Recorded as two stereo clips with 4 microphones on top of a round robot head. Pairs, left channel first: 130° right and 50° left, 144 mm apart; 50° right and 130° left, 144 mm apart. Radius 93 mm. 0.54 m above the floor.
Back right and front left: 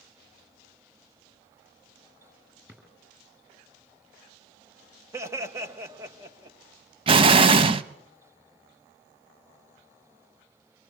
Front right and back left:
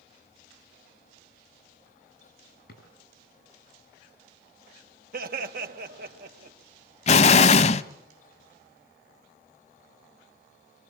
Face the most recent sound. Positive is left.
turn(degrees=-5)